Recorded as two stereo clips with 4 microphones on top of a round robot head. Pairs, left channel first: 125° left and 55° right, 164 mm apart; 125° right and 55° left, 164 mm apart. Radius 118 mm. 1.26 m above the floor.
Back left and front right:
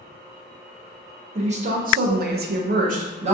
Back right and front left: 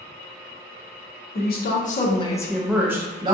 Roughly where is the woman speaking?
Right.